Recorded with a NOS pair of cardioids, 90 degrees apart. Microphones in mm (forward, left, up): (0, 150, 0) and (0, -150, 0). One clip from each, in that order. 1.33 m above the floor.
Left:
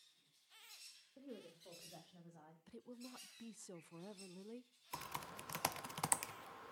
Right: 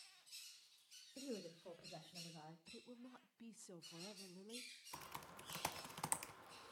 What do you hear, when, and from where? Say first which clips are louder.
1.2 s a woman speaking: right 5 dB; 30° right, 1.8 m; by 2.6 s 20° right, 3.5 m
2.7 s a woman speaking: left 3 dB; 15° left, 0.6 m
4.9 s typing on a keyboard: left 8 dB; 25° left, 0.7 m